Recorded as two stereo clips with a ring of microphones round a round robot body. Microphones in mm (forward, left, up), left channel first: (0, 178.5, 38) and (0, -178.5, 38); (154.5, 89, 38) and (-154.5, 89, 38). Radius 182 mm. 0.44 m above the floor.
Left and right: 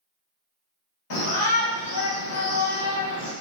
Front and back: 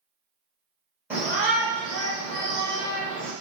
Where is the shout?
100° left, 2.0 m.